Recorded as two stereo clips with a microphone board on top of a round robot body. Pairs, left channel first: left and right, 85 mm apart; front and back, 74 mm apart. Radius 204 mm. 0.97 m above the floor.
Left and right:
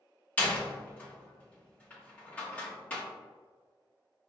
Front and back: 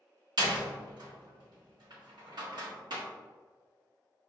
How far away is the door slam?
About 1.3 m.